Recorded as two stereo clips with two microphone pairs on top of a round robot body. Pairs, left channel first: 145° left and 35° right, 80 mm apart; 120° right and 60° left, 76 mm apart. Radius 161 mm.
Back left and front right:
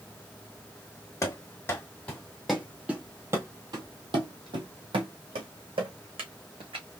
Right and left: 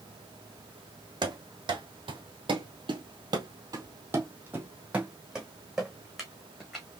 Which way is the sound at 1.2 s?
85° left.